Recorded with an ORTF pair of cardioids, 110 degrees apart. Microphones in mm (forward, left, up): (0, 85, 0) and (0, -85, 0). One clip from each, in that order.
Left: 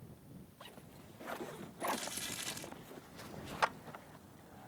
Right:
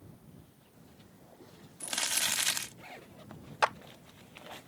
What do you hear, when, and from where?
1.8 s crumpling: 70° right
3.6 s a clap: 30° right